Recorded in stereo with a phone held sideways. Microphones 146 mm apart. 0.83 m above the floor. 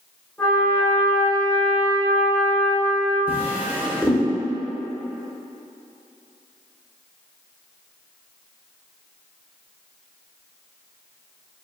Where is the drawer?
15° right (ahead or behind), 0.7 m.